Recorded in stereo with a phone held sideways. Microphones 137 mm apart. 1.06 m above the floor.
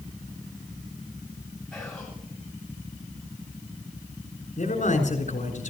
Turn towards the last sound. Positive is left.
turn(degrees=65)  # may be behind; listen again after turning